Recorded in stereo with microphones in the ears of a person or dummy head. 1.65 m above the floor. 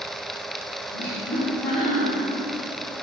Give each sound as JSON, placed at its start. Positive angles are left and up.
{"t": 0.9, "sound": "laughter", "side_deg": 10, "distance_m": 1.8}